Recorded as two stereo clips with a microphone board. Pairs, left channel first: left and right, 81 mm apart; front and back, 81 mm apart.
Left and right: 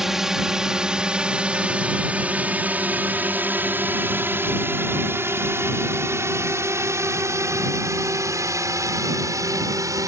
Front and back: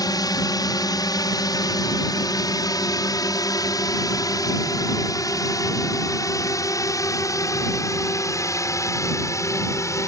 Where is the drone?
10° right; by 10.1 s 50° right.